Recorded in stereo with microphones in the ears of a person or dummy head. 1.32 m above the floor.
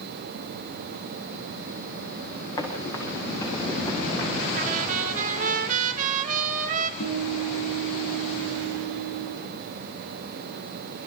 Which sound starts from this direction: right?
A trumpet, at 4.5 s.